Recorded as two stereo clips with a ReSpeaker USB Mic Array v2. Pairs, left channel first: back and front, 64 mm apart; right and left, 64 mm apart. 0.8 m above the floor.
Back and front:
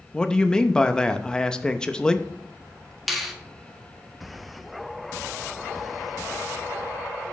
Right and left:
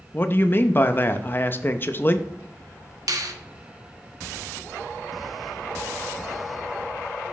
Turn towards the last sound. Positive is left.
turn(degrees=90)